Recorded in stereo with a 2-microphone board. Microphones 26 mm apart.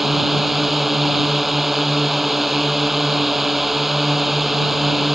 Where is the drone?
10° right (ahead or behind).